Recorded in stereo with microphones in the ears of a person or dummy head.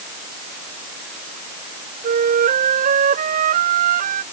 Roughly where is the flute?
Right.